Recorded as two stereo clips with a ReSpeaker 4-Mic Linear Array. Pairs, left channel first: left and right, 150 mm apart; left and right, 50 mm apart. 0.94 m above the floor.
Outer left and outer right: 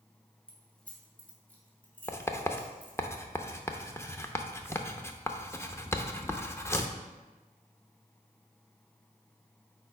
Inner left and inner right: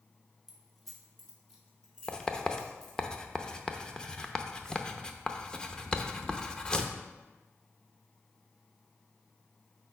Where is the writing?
15° left (ahead or behind), 0.6 m.